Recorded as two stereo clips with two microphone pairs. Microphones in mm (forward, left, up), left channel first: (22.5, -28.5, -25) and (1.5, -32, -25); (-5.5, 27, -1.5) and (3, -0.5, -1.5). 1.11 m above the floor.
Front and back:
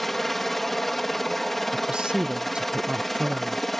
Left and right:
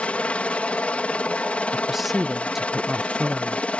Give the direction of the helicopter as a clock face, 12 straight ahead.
9 o'clock.